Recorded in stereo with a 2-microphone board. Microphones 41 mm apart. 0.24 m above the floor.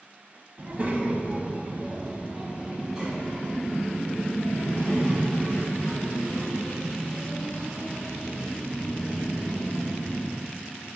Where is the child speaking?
35° right (ahead or behind), 1.2 m; by 10.3 s centre (ahead or behind), 6 m.